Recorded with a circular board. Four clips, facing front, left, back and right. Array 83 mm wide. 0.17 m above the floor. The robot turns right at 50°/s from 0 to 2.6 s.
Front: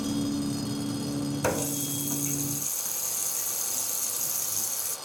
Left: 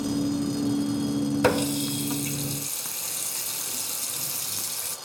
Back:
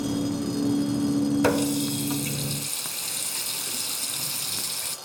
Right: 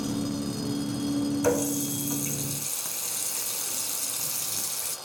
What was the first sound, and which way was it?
A running tap, 115° left.